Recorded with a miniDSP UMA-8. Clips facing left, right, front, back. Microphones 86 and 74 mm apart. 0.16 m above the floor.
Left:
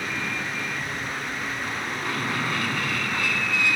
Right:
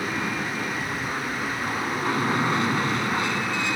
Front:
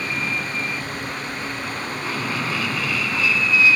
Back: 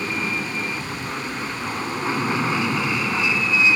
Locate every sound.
0.0 s an aircraft: 135° right